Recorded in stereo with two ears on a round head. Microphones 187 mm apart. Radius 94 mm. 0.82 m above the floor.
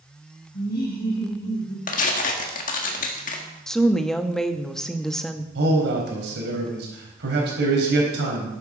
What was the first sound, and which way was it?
Laughter, 50° left (ahead or behind).